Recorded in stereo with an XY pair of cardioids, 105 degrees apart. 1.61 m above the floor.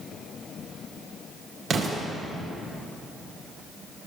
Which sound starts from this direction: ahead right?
An explosion, at 1.7 s.